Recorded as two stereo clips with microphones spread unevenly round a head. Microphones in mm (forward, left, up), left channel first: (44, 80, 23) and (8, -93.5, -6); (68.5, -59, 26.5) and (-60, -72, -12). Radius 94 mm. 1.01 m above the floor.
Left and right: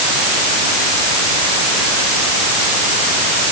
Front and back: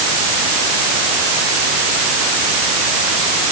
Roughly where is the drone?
No drone in this recording.